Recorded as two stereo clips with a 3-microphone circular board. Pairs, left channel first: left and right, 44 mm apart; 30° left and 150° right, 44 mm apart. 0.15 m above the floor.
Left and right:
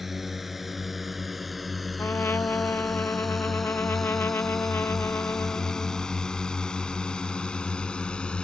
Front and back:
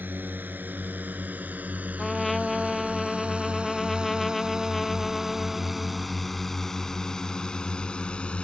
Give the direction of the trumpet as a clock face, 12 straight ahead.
8 o'clock.